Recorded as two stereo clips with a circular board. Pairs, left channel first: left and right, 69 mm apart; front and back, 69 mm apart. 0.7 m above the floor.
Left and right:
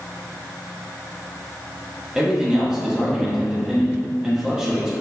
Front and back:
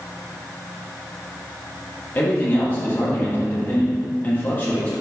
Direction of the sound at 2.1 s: 20° right.